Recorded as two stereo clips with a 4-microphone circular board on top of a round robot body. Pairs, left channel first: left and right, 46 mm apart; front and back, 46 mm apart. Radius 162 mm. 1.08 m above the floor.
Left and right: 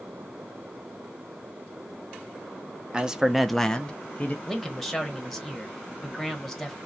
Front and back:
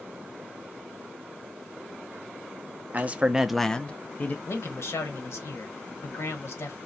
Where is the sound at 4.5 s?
5° left, 1.1 m.